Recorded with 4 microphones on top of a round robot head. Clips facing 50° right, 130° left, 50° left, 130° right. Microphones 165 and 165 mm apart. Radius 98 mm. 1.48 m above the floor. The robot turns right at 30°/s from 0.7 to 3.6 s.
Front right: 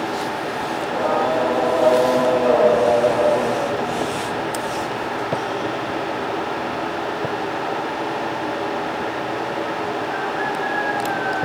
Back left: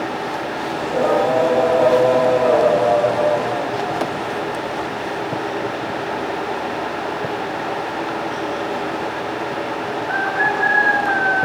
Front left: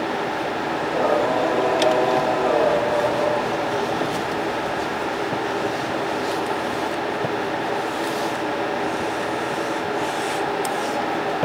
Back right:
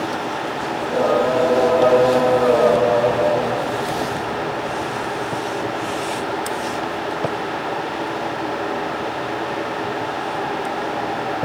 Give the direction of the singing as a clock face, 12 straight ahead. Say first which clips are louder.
Back left 4 dB, back right 3 dB; 6 o'clock.